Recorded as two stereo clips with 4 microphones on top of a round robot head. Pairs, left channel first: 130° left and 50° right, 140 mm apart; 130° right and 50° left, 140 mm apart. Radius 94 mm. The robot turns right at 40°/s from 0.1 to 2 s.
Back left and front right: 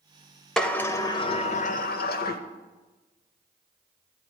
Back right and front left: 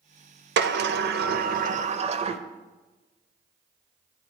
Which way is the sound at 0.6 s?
40° left.